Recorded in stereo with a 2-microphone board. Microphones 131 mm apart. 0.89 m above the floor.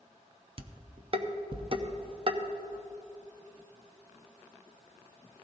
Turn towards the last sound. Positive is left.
turn(degrees=-45)  # may be behind; listen again after turning